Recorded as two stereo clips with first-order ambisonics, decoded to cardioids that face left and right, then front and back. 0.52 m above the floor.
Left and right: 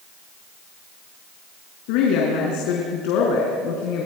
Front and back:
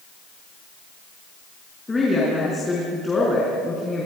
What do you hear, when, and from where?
1.9 s a woman speaking: 80° left, 4.5 m